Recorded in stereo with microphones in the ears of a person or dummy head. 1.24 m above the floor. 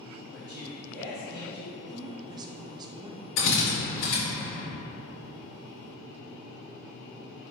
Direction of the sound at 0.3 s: 65° right (ahead or behind).